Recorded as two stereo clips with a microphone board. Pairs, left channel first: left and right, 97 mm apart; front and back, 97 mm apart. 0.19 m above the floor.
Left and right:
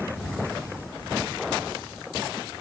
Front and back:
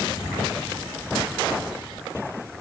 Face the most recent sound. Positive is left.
No sound to turn to.